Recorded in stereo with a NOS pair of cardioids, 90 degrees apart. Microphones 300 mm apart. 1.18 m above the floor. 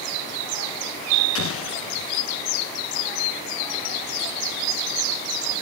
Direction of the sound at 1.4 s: 50° left.